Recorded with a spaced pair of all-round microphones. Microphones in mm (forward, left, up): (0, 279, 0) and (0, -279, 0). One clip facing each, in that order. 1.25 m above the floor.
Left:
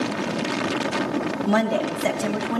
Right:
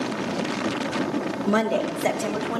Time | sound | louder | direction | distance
1.5 | a woman speaking | even | 15° left (ahead or behind) | 0.9 m